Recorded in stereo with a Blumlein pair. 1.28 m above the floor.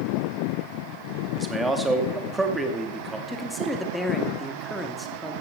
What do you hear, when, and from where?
1.3 s a man speaking: 10° right, 2.5 m
3.3 s a man speaking: straight ahead, 2.5 m